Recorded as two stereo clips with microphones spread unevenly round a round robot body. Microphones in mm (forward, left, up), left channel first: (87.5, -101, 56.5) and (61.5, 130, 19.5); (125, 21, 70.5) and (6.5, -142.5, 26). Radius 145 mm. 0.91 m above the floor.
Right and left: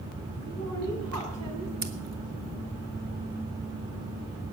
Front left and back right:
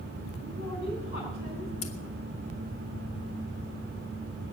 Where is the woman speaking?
100° left, 8 m; by 1.7 s 95° left, 7.5 m.